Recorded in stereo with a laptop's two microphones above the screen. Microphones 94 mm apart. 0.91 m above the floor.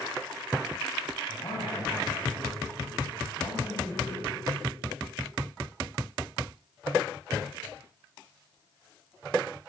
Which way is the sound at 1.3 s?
70° left (ahead or behind).